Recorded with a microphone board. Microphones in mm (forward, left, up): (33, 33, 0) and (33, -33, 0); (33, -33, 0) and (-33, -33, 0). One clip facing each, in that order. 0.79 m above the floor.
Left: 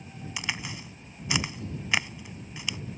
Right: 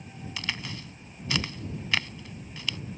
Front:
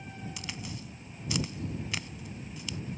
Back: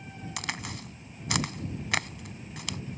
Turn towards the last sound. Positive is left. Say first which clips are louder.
# left 1 dB, back 5 dB
turn(degrees=165)